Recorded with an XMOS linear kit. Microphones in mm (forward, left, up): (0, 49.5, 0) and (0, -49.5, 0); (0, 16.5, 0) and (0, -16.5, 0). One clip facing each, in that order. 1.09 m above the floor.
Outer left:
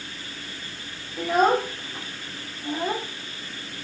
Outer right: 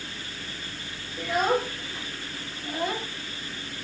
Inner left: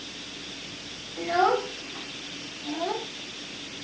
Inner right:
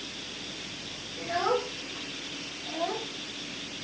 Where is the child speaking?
50° left (ahead or behind), 2 m; by 3.0 s 30° left (ahead or behind), 2.5 m.